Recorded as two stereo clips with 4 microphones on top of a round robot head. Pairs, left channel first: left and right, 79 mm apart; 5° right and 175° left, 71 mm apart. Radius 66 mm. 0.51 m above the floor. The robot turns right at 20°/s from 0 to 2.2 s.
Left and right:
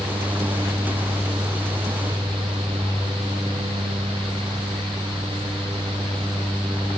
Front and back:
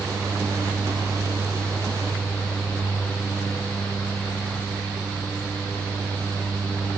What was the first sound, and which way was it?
Only background noise.